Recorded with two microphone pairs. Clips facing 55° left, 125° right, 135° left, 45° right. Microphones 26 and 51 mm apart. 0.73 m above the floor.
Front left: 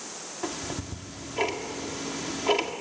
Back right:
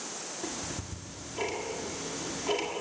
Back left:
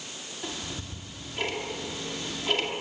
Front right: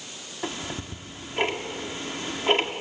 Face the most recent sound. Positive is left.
turn(degrees=0)